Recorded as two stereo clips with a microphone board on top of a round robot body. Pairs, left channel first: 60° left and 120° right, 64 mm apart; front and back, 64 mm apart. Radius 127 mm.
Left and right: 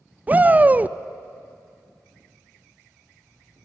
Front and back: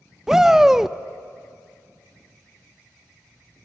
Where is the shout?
105° right, 0.6 m.